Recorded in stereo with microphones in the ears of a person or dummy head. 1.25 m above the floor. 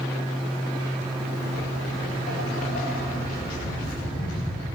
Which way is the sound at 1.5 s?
45° left (ahead or behind).